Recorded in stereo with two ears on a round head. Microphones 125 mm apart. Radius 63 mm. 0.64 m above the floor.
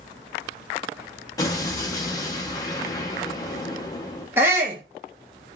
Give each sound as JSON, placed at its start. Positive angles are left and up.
{"t": 1.4, "sound": "an explosion", "side_deg": 25, "distance_m": 0.7}
{"t": 4.4, "sound": "a shout", "side_deg": -15, "distance_m": 0.7}